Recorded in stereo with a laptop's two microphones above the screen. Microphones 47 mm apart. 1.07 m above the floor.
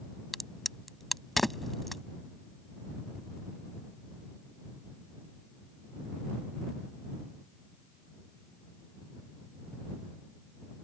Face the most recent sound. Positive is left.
turn(degrees=5)  # may be behind; listen again after turning